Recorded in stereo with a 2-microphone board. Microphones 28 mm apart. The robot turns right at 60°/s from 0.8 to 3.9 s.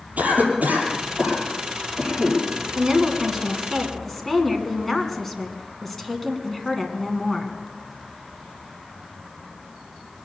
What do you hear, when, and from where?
0.2 s a cough: 70° right (ahead or behind), 6 m; by 2.4 s 10° right (ahead or behind), 6 m
2.8 s a woman speaking: 55° right, 2 m; by 7.6 s 15° left, 2 m